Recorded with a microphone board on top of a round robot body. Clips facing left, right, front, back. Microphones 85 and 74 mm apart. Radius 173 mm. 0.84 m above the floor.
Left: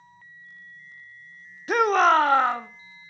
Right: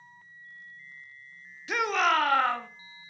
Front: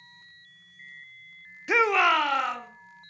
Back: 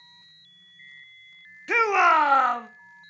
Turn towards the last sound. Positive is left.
turn(degrees=160)